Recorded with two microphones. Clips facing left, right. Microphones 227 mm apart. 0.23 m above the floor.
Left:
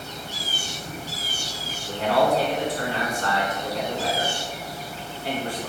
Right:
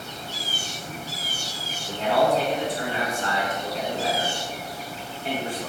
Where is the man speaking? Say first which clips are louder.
Even; 25° right (ahead or behind), 2.0 m.